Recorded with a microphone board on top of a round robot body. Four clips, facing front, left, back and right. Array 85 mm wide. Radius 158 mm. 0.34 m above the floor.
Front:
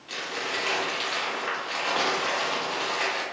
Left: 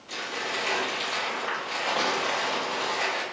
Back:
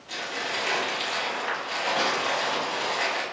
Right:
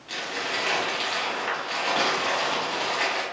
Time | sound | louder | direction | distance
0.1 | crumpling | right 2 dB, even | 55° right | 1.7 m